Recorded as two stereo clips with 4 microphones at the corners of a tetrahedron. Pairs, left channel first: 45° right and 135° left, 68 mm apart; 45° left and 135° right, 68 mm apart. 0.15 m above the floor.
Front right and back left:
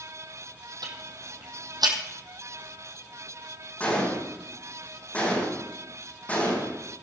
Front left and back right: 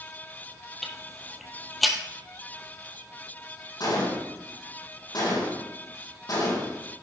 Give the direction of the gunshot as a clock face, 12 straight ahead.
11 o'clock.